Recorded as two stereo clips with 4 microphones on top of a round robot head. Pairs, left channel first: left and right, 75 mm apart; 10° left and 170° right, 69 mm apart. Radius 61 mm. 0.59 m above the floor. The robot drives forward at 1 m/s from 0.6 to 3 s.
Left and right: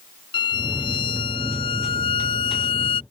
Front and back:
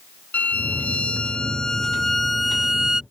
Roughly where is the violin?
Left.